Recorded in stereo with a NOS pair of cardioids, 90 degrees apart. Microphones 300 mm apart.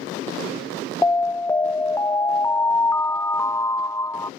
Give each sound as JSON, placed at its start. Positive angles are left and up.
{"t": 1.0, "sound": "an alarm", "azimuth_deg": 10}